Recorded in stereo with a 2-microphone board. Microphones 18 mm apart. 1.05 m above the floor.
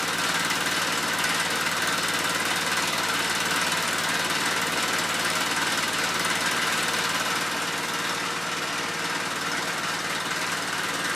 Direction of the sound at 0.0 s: 10° left (ahead or behind).